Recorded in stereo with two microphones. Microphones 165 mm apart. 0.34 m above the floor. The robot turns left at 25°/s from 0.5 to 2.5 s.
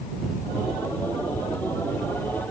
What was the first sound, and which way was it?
Only background noise.